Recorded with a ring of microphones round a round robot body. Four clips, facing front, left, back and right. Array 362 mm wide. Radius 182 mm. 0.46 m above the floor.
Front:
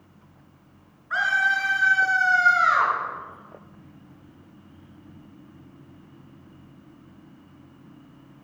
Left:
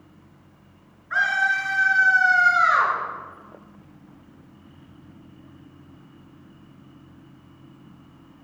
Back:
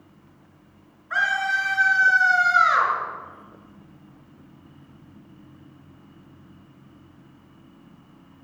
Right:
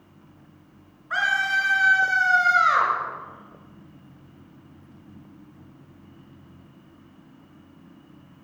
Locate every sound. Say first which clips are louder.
1.1 s a scream: left 1 dB, front 1 dB; 90° right, 6 m; by 2.9 s 100° right, 7 m